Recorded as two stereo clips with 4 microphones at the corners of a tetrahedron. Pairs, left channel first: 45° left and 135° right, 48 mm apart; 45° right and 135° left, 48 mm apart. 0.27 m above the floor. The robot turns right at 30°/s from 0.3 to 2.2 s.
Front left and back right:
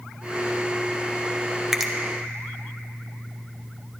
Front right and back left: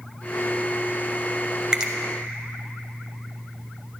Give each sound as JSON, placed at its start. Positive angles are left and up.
{"t": 1.7, "sound": "a finger snap", "azimuth_deg": 145, "distance_m": 0.7}